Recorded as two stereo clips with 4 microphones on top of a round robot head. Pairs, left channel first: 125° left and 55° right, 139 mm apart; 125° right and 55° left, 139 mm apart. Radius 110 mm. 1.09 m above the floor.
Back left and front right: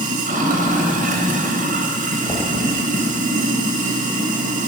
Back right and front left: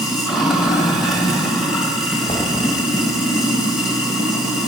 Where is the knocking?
175° left, 1.6 m.